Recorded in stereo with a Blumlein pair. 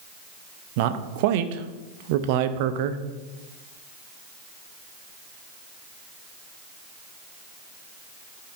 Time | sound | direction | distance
0.8 | a man speaking | 50° right | 0.8 m